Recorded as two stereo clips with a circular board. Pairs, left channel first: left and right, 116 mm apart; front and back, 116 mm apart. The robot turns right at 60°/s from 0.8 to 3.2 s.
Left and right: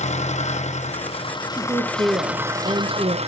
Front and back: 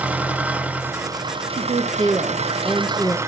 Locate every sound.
0.0 s an engine running: 105° left, 0.9 m; by 3.3 s 115° right, 0.9 m
1.5 s a woman speaking: 165° right, 1.1 m; by 3.2 s 65° right, 1.1 m